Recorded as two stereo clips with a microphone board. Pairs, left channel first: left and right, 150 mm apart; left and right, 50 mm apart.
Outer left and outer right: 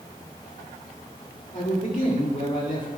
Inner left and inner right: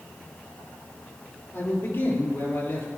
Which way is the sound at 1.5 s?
55° left (ahead or behind).